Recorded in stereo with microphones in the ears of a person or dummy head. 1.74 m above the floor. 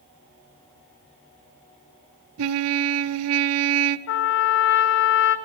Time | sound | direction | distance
2.4 | a trumpet | 70° right (ahead or behind) | 0.7 m
4.1 | a trumpet | 60° left (ahead or behind) | 1.0 m